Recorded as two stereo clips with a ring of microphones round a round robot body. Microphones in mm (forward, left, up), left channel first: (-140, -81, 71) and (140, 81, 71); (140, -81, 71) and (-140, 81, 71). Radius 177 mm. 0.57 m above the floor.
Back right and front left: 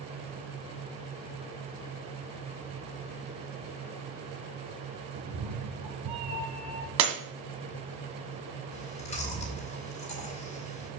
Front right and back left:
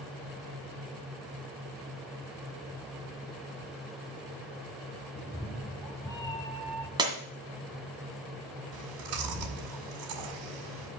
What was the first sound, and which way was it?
A cat meowing, 60° left.